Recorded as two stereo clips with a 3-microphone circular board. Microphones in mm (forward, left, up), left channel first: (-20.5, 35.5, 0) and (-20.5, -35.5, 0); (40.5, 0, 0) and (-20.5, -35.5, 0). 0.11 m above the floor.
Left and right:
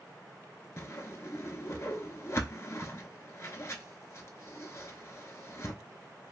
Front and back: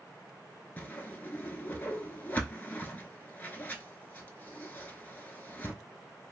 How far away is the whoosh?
About 0.6 m.